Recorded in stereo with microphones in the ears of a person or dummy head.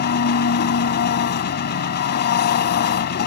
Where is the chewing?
No chewing in this recording.